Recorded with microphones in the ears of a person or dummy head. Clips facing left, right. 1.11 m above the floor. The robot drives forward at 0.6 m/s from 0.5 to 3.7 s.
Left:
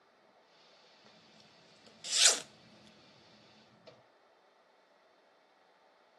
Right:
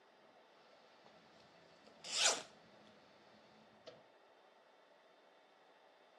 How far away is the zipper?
About 1.1 m.